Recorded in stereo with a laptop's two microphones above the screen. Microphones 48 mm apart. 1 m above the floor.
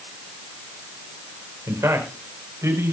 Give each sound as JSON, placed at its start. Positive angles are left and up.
{"t": 1.7, "sound": "a man speaking", "side_deg": -80, "distance_m": 4.5}